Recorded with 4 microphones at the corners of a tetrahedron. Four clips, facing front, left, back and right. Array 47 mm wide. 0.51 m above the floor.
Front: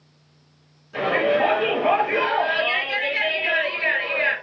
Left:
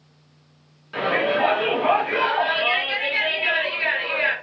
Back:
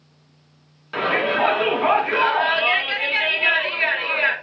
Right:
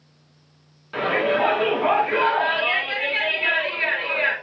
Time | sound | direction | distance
0.9 | a shout | 165° right | 5 m